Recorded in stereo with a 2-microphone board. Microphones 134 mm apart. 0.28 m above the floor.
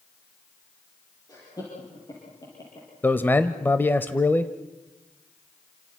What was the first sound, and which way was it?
Laughter, 25° left (ahead or behind).